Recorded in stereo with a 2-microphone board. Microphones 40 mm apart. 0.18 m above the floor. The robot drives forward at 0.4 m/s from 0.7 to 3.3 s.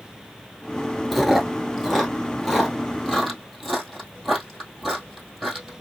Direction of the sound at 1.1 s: Centre (ahead or behind).